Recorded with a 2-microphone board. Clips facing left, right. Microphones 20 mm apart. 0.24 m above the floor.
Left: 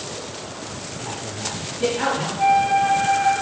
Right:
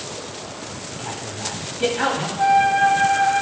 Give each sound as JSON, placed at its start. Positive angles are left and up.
{"t": 0.9, "sound": "a man speaking", "side_deg": -30, "distance_m": 1.4}
{"t": 2.4, "sound": "a flute", "side_deg": -50, "distance_m": 3.5}